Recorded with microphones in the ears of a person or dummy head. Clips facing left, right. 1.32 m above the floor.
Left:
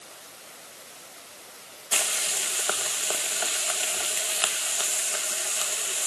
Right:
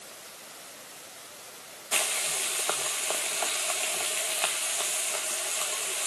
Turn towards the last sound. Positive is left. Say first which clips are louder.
# even
turn(degrees=10)  # may be behind; listen again after turning